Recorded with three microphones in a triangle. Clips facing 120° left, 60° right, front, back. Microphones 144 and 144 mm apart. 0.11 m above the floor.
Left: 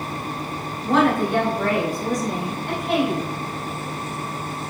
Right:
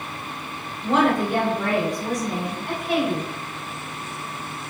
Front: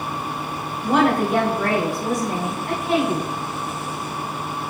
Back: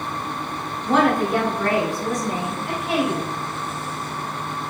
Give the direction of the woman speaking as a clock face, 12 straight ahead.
2 o'clock.